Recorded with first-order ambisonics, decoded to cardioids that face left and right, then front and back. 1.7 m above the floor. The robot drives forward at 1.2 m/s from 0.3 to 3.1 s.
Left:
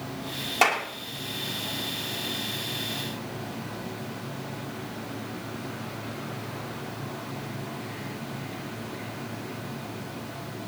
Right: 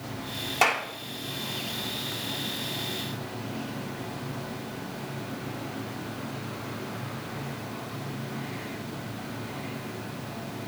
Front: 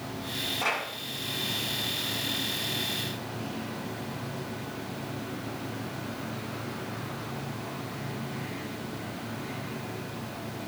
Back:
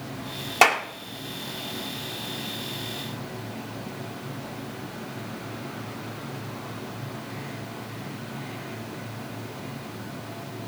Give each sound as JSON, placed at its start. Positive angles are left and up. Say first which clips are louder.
{"t": 0.6, "sound": "a clap", "louder": "left 1 dB, back 12 dB", "azimuth_deg": 175, "distance_m": 2.5}